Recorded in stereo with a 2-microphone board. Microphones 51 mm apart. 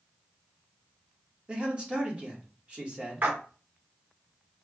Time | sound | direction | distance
1.5 | a man speaking | 25° right (ahead or behind) | 1.4 m
3.2 | a splash | 40° right (ahead or behind) | 1.2 m